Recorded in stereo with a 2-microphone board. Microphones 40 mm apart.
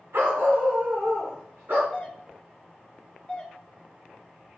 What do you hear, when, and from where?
0.1 s a dog barking: 75° right (ahead or behind), 1.6 m; by 1.8 s 60° right (ahead or behind), 2.5 m
1.9 s a doorbell: 25° left (ahead or behind), 1.0 m